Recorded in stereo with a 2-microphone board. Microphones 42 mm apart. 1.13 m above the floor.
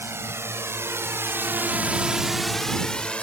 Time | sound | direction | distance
0.0 | a drone | 80° right | ?